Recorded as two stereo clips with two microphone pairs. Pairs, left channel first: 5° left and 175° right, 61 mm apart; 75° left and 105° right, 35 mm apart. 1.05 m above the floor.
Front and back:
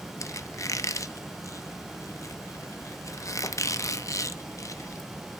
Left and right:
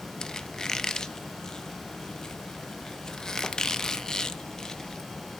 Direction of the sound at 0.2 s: 5° left.